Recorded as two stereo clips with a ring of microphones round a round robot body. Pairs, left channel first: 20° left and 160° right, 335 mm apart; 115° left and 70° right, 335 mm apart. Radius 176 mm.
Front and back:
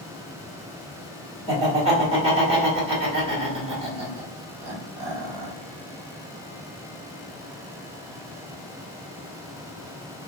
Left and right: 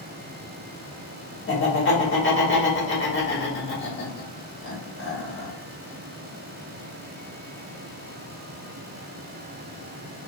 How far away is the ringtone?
I don't hear a ringtone.